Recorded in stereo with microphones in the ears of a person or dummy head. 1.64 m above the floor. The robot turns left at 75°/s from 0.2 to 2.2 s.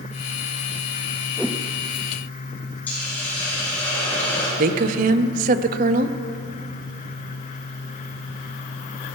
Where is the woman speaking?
40° right (ahead or behind), 0.6 m.